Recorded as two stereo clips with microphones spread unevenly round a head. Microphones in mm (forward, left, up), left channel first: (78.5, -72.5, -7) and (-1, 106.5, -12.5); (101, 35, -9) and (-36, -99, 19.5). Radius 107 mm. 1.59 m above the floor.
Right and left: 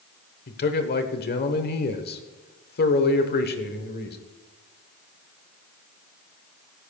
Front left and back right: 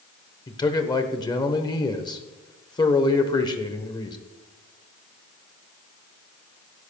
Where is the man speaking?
25° right, 1.0 m.